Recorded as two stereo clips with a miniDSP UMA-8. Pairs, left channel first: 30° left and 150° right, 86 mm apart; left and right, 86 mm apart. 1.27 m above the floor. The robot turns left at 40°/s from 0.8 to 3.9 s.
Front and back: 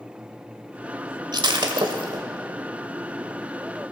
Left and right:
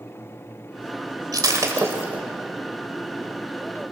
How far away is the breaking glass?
About 2 m.